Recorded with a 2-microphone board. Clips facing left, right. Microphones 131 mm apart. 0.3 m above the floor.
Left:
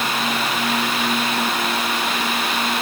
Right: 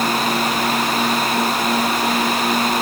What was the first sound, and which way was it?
Only background noise.